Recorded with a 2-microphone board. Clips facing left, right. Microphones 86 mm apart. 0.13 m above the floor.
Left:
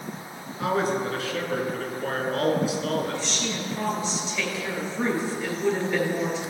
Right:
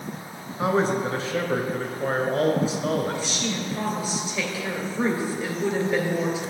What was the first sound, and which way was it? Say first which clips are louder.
A man speaking: right 2 dB; 30° right (ahead or behind).